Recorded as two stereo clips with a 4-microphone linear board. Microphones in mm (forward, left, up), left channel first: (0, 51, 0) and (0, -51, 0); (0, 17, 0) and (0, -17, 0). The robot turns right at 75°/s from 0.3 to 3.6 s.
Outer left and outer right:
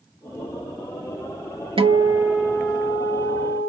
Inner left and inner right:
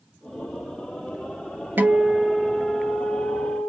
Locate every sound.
1.8 s a guitar: 55° right, 0.5 m; by 3.7 s 80° left, 0.5 m